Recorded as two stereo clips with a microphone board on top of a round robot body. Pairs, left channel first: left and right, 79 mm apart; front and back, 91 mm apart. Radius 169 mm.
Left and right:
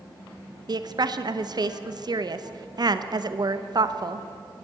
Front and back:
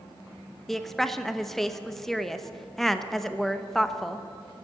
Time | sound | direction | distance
0.7 | a woman speaking | 85° right | 1.0 m